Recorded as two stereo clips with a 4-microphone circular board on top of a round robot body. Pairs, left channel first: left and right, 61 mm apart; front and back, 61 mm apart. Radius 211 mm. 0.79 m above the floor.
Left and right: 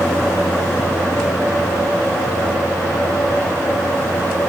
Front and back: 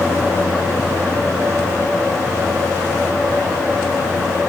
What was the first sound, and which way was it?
Only background noise.